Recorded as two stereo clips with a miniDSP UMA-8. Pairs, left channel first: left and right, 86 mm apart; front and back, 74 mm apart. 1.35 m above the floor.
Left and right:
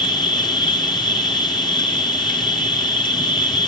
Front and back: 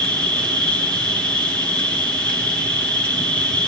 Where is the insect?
70° left, 4.5 m.